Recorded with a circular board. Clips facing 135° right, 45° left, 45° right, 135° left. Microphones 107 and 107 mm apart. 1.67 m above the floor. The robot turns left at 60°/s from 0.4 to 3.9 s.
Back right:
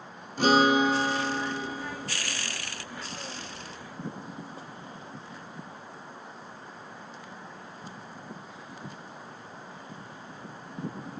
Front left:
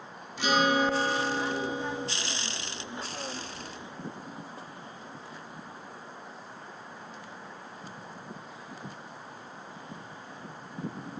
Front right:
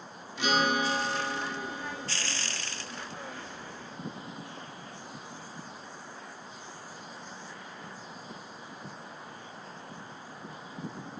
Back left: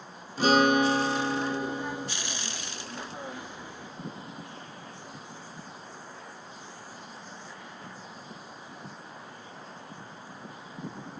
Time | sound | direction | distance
0.4 | a guitar | 175° right | 0.6 m